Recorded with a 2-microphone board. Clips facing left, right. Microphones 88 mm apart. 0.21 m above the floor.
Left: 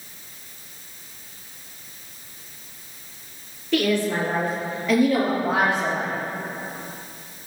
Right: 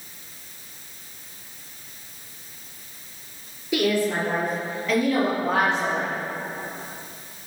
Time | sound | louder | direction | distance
3.7 | a woman speaking | left 1 dB | 10° right (ahead or behind) | 4 m